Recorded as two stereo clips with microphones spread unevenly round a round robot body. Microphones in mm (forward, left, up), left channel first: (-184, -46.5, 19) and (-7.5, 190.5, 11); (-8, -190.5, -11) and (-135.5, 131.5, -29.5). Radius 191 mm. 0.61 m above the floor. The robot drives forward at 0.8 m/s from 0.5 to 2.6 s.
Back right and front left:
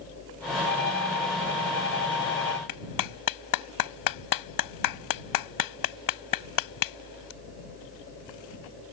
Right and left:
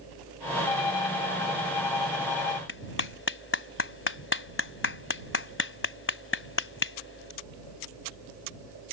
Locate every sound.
0.7 s a violin: 60° right; by 2.6 s 65° right
2.7 s a clap: 125° right